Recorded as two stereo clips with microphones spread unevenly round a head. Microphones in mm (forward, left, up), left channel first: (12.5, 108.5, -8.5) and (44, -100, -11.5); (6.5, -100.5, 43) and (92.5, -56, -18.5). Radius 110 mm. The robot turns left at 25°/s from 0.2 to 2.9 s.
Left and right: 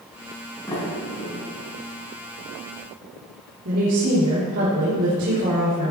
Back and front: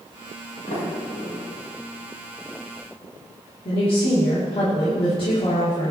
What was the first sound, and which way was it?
A sliding door, 175° left.